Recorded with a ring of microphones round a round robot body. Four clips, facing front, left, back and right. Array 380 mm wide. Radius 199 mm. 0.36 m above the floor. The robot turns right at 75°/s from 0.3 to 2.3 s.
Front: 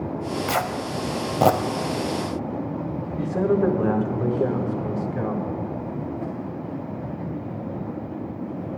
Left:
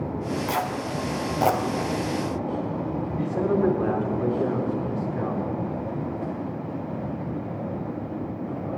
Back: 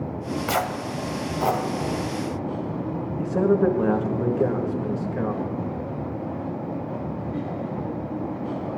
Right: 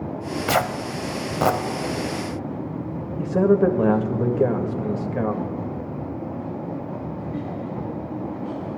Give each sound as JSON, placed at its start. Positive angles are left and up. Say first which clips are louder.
{"t": 0.5, "sound": "tearing paper", "louder": "right 4 dB, back 1 dB", "azimuth_deg": -95, "distance_m": 1.1}
{"t": 3.2, "sound": "a man speaking", "louder": "right 6 dB, back 1 dB", "azimuth_deg": -95, "distance_m": 1.7}